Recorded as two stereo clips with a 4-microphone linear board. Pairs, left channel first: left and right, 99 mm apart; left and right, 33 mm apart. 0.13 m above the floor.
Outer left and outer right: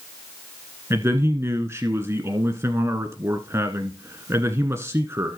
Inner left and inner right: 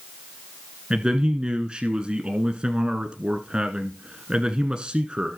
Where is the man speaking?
30° right (ahead or behind), 1.2 m.